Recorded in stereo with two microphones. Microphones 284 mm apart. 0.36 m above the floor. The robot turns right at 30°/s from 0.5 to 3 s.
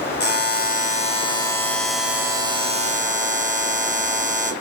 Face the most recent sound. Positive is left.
turn(degrees=-150)